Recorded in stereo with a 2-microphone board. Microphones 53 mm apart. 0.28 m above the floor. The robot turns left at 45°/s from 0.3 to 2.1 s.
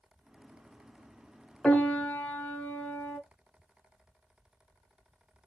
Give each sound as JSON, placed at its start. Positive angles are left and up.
{"t": 1.6, "sound": "a piano", "side_deg": 15, "distance_m": 1.0}